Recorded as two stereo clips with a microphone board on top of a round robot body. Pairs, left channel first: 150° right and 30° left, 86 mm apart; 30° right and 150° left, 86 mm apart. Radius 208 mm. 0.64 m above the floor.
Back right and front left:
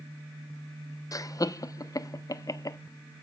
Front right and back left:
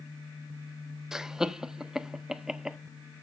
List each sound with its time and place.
1.1 s laughter: 130° right, 0.8 m